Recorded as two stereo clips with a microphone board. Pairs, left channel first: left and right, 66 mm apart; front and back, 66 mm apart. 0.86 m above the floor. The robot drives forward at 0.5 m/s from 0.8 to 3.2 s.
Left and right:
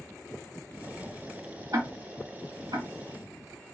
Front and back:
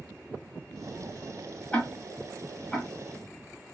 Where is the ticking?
70° right, 1.7 m; by 2.9 s 90° right, 1.6 m.